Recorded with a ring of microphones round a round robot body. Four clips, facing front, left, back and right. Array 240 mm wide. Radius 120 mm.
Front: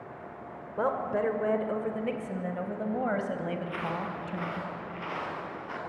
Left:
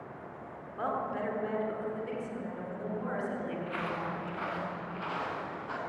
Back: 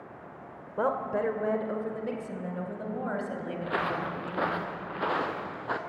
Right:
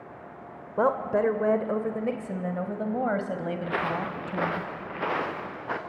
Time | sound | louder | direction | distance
0.8 | a woman speaking | right 10 dB, even | 95° right | 1.5 m
3.6 | footsteps | right 6 dB, back 3 dB | 130° right | 2 m